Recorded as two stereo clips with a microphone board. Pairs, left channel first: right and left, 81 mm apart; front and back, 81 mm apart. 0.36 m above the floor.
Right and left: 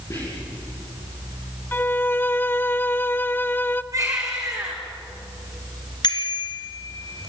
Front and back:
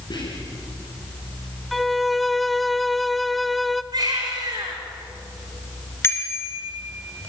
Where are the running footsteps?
No running footsteps in this recording.